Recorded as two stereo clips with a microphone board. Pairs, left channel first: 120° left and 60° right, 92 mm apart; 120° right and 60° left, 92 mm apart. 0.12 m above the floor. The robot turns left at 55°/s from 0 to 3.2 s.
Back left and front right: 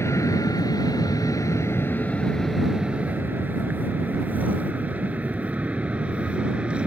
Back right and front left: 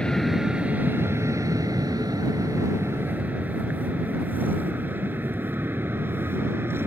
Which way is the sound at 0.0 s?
165° left.